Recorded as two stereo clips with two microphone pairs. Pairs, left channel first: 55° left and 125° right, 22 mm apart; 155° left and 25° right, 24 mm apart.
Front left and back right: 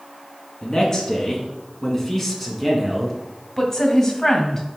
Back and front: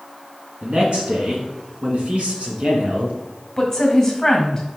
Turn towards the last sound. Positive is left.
turn(degrees=90)